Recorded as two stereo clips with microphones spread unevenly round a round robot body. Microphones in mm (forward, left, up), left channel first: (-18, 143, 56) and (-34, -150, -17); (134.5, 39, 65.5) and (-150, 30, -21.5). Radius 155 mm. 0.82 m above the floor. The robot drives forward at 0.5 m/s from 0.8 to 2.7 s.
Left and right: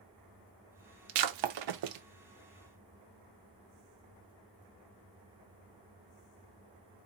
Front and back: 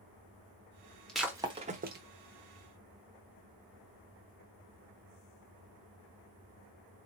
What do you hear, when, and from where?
1.1 s breaking glass: 80° right, 0.7 m; by 2.0 s 115° right, 0.8 m